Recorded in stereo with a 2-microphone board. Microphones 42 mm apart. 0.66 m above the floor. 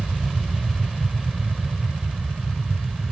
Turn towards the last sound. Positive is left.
turn(degrees=-5)  # may be behind; listen again after turning